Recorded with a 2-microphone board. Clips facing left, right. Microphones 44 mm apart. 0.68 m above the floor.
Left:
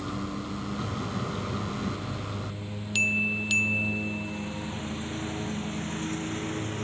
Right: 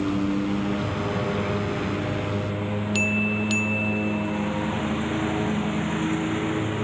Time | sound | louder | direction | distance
0.0 | a lawn mower | right 10 dB | 55° right (ahead or behind) | ?